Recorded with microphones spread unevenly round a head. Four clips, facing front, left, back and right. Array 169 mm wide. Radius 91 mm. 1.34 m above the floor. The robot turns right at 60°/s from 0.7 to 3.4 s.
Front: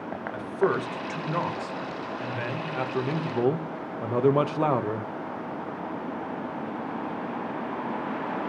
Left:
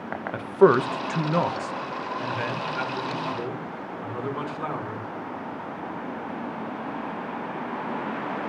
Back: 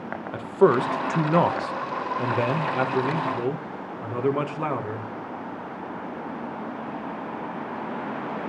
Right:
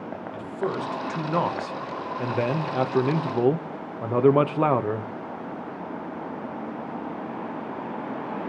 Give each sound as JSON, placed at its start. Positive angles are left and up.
{"t": 0.3, "sound": "a man speaking", "azimuth_deg": 130, "distance_m": 1.4}